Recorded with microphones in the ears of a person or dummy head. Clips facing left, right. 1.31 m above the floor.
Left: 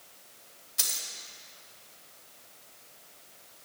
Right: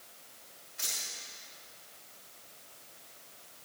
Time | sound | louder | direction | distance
0.8 | a dropped coin | left 2 dB | 55° left (ahead or behind) | 3 m